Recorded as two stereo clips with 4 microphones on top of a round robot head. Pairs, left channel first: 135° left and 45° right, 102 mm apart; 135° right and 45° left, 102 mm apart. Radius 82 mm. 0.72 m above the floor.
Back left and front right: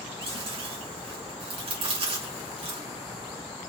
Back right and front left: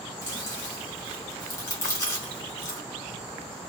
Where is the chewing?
70° right, 2.5 m.